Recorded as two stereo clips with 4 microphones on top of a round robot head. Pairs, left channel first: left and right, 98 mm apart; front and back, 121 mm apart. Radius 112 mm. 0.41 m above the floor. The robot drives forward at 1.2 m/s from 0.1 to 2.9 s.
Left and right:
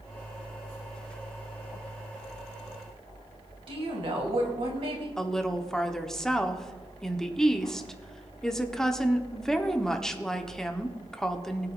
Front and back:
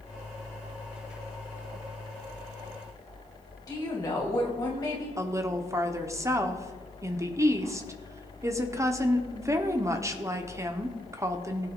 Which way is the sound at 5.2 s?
170° left.